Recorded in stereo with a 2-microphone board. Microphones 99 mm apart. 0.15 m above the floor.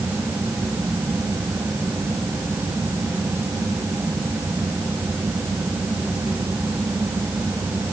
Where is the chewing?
No chewing in this recording.